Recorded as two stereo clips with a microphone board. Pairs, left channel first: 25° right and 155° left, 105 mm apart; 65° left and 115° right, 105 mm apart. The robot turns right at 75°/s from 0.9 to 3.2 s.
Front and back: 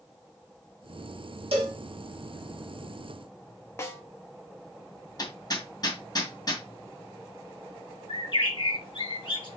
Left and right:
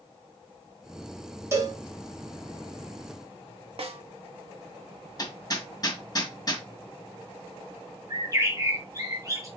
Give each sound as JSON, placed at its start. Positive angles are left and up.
{"t": 1.5, "sound": "a cowbell", "azimuth_deg": -175, "distance_m": 2.5}
{"t": 3.8, "sound": "a snare drum", "azimuth_deg": -85, "distance_m": 1.6}
{"t": 5.2, "sound": "hammering", "azimuth_deg": 20, "distance_m": 1.9}
{"t": 8.1, "sound": "a bird", "azimuth_deg": -55, "distance_m": 3.0}